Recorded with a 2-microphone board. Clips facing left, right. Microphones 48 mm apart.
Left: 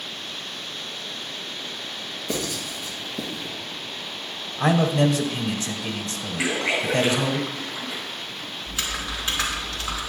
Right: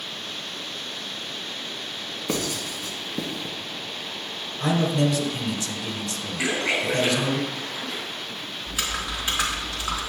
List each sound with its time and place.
2.3 s writing: 65° right (ahead or behind), 2.5 m
4.6 s a man speaking: 35° left (ahead or behind), 1.1 m
6.4 s a splash: 10° left (ahead or behind), 5 m
8.7 s typing on a keyboard: 15° right (ahead or behind), 3 m